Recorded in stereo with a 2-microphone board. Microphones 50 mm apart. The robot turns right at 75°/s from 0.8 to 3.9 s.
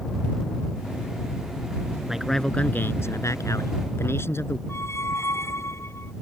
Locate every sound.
2.1 s a man speaking: 15° right; by 4.6 s 125° left
4.7 s a squeak: 60° left (ahead or behind)